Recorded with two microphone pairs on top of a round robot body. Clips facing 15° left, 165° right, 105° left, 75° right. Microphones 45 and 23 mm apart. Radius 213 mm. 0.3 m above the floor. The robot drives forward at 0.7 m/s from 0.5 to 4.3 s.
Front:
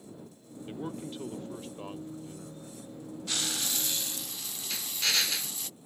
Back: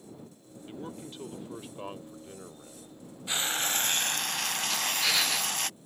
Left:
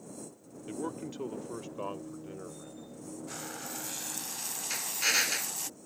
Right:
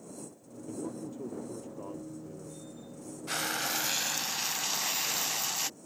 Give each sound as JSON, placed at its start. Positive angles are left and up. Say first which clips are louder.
{"t": 0.7, "sound": "a man speaking", "louder": "front 3 dB, left 1 dB", "azimuth_deg": 100}
{"t": 3.3, "sound": "frying", "louder": "back 4 dB, right 12 dB", "azimuth_deg": -95}
{"t": 4.7, "sound": "a drill", "louder": "back 1 dB, left 2 dB", "azimuth_deg": 115}